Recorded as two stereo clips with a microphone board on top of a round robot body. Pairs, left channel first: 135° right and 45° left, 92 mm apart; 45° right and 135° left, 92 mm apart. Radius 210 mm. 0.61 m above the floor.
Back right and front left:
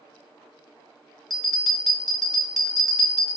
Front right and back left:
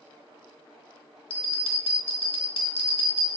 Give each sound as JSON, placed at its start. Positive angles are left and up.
{"t": 1.3, "sound": "a bell", "azimuth_deg": -45, "distance_m": 0.8}